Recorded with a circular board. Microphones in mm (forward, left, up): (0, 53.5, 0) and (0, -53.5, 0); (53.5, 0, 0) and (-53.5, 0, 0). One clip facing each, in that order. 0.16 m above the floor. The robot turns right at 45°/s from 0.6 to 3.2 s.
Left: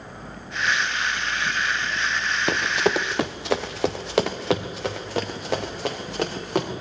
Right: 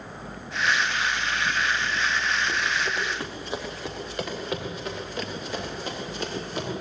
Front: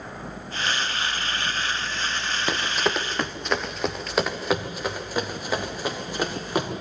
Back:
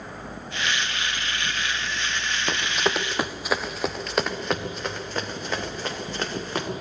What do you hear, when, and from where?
2.5 s running footsteps: 80° left, 1.0 m; by 6.7 s 75° left, 4 m